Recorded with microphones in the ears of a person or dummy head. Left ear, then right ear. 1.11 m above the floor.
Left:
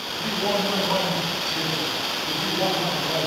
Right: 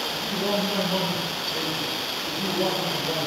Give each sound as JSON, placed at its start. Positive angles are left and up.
{"t": 0.1, "sound": "a man speaking", "side_deg": 65, "distance_m": 7.5}